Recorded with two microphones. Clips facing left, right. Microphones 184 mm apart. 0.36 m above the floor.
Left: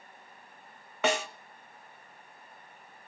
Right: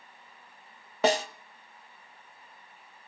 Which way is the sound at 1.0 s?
40° right (ahead or behind).